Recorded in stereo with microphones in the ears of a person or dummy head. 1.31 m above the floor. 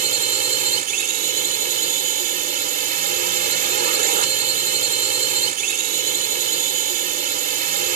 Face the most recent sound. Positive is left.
turn(degrees=-50)  # may be behind; listen again after turning